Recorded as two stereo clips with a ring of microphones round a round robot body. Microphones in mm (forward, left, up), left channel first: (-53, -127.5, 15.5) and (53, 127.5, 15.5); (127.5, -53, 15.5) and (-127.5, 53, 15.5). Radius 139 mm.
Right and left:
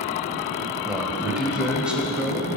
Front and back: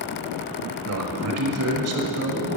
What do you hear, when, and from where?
0.9 s a man speaking: 155° left, 1.2 m